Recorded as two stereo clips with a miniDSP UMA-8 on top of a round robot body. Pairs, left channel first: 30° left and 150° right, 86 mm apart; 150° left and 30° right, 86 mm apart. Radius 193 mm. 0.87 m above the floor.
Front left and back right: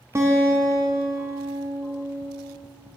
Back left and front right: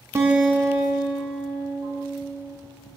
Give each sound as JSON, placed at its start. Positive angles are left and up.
{"t": 0.1, "sound": "a guitar", "azimuth_deg": -90, "distance_m": 0.6}